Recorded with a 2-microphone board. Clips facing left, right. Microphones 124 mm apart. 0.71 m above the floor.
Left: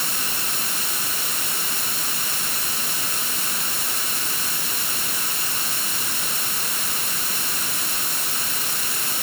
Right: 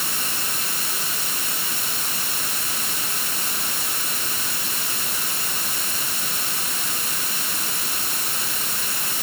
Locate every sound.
Only background noise.